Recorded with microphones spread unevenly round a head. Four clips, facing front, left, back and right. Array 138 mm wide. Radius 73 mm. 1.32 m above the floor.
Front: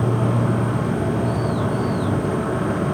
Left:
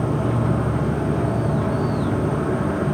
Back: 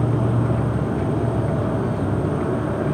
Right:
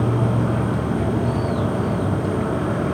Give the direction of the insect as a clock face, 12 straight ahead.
12 o'clock.